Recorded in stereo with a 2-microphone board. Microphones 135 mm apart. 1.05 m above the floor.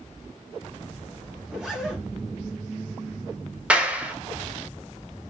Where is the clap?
10° right (ahead or behind), 0.5 m.